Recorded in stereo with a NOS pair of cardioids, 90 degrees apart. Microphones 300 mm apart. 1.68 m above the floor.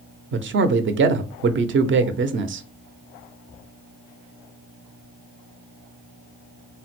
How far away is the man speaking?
About 0.6 m.